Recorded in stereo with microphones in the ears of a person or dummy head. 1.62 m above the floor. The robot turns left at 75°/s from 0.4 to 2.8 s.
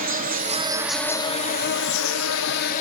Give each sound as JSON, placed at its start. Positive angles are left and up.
{"t": 0.0, "sound": "an insect", "azimuth_deg": -140, "distance_m": 1.0}